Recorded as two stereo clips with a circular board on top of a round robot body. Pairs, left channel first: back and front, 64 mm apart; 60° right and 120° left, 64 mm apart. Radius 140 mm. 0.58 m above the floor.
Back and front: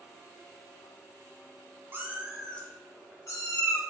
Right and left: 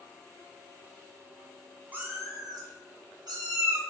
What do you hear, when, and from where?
1.9 s a cat meowing: 55° left, 0.6 m; by 3.8 s 145° left, 1.3 m